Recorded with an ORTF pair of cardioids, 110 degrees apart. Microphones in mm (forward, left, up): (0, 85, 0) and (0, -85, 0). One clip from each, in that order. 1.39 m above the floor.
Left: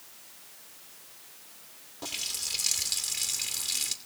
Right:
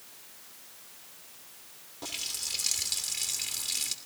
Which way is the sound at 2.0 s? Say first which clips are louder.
Left 1 dB; 10° left.